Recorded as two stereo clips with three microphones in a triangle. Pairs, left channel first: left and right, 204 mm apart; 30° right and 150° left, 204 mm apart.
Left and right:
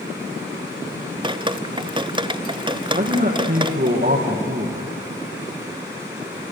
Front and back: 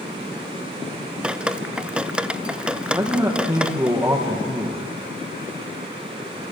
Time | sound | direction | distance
1.2 | dripping | 130° right | 0.6 m
2.9 | a man speaking | 130° right | 4.5 m